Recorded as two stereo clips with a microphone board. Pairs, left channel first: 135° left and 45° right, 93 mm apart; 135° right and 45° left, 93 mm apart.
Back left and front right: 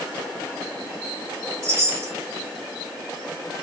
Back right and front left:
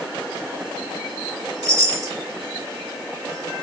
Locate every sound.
1.6 s a chime: 5° left, 1.6 m